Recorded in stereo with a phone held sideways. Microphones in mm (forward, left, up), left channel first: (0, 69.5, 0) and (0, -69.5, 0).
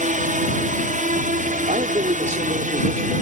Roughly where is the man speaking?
Right.